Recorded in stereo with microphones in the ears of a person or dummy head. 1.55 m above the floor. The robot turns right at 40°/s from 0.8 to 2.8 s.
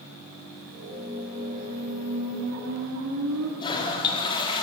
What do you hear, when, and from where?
1.0 s a squeak: 175° right, 4.5 m; by 3.5 s 100° right, 4.5 m
3.6 s a toilet flushing: 25° left (ahead or behind), 3.5 m